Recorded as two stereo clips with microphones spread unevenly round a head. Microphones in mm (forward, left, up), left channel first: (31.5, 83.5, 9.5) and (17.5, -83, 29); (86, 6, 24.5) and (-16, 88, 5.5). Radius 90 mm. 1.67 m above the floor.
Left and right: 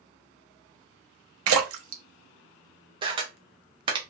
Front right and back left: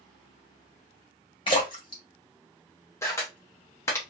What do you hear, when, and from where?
1.5 s a splash: 105° right, 0.7 m
3.0 s a camera shutter: 80° right, 0.7 m